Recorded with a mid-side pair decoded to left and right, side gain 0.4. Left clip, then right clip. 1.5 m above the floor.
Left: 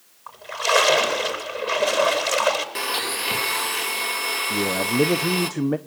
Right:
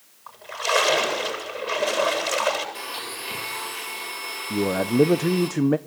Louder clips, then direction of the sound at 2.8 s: Left 7 dB; 65° left.